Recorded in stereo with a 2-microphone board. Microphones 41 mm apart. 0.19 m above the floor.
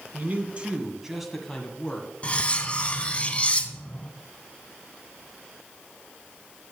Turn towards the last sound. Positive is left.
turn(degrees=30)  # may be behind; listen again after turning